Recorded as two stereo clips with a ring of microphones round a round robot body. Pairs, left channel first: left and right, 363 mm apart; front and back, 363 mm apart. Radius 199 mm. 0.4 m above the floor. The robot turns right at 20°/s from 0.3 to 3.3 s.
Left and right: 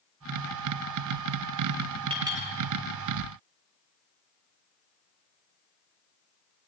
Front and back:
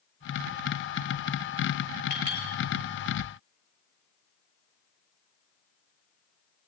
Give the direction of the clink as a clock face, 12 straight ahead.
12 o'clock.